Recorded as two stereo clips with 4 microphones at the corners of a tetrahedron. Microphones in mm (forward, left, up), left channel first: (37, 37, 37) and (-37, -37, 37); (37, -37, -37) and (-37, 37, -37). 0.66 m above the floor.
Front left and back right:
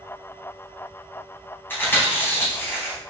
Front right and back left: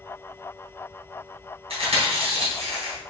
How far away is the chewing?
About 3 m.